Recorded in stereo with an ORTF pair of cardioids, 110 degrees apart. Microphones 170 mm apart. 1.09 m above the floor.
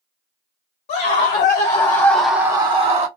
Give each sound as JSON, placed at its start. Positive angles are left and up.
{"t": 0.9, "sound": "a scream", "azimuth_deg": 65, "distance_m": 1.4}